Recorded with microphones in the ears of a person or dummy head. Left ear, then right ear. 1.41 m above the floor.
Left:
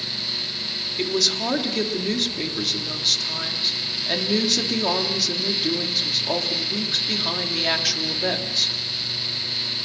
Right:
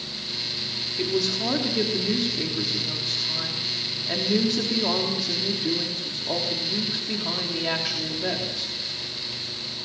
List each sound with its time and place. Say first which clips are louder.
1.0 s a woman speaking: left 4 dB; 30° left (ahead or behind), 3.5 m